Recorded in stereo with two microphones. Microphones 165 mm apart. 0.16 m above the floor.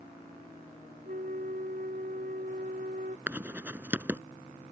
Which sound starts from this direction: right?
A flute, at 1.1 s.